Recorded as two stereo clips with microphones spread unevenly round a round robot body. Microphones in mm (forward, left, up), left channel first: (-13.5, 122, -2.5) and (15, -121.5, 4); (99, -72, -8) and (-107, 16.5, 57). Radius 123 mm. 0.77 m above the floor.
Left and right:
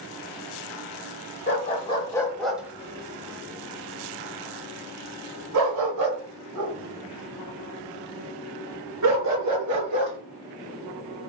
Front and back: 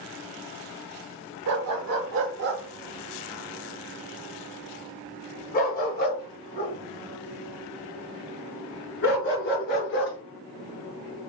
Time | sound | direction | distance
1.5 | a dog barking | 160° left | 1.1 m